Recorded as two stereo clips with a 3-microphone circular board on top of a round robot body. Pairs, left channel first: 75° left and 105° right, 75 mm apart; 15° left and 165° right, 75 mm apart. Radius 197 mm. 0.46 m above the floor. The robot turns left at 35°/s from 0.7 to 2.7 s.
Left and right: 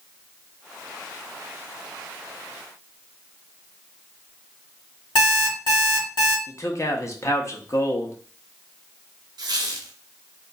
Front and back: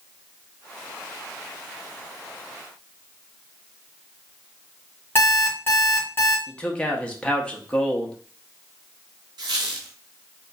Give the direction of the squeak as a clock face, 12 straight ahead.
5 o'clock.